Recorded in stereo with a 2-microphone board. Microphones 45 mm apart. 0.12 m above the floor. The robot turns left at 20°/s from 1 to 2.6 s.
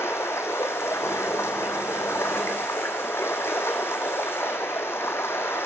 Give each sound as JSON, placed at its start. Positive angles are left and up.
{"t": 0.0, "sound": "running water", "azimuth_deg": 100, "distance_m": 1.1}